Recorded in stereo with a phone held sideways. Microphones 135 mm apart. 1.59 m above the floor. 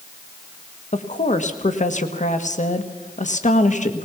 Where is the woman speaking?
60° left (ahead or behind), 1.5 m.